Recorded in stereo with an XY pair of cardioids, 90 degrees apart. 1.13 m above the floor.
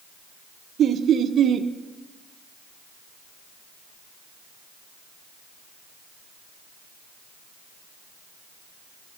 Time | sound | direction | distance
0.8 | laughter | 65° right | 0.5 m